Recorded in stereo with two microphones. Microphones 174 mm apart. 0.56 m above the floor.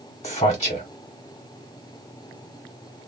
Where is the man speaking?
35° left (ahead or behind), 1.2 m.